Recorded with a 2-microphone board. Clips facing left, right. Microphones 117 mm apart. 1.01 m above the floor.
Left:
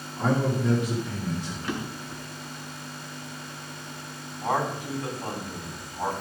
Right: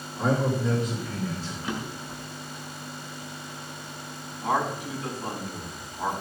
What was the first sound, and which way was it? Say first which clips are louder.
A man speaking: even; centre (ahead or behind).